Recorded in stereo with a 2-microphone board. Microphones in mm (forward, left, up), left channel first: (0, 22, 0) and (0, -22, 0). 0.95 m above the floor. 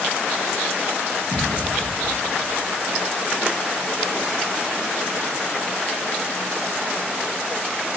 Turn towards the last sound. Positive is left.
turn(degrees=45)  # may be behind; listen again after turning